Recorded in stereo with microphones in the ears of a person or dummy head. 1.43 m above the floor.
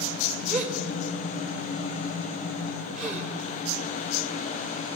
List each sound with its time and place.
0.5 s a gasp: 35° right (ahead or behind), 3.5 m